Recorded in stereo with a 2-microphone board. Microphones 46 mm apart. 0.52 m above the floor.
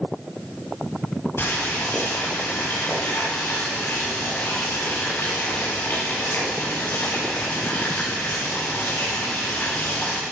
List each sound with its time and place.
1.4 s boiling: 55° left (ahead or behind), 7.5 m